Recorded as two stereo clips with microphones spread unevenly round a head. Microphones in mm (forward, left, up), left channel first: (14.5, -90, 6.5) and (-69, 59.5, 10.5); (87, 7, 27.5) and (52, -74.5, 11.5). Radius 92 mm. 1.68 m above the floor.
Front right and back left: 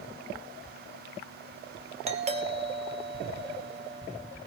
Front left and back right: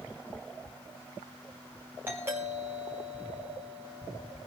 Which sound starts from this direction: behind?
A doorbell, at 2.1 s.